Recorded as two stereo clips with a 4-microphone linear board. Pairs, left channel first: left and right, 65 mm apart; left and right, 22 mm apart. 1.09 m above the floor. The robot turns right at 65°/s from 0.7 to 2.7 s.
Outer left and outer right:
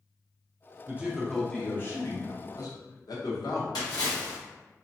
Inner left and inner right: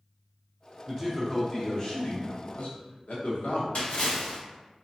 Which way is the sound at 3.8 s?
80° left.